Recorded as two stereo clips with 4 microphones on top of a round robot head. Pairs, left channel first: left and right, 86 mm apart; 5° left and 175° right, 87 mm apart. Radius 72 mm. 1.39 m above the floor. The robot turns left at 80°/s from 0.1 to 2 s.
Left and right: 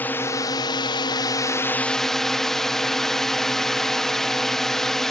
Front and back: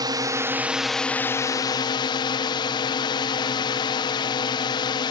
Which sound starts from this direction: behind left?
A drone, at 0.0 s.